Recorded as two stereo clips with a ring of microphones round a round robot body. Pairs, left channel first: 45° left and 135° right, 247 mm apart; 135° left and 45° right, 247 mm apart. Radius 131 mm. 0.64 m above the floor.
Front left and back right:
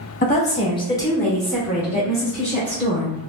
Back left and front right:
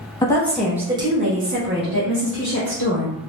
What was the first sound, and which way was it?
A woman speaking, 70° left.